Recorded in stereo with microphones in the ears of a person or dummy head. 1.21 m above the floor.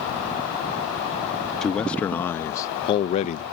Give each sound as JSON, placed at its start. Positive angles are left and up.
{"t": 1.6, "sound": "a man speaking", "side_deg": 10}